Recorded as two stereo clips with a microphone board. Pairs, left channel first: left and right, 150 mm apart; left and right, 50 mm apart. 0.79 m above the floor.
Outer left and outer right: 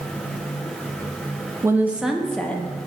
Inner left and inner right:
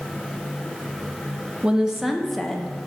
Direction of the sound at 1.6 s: 20° right (ahead or behind).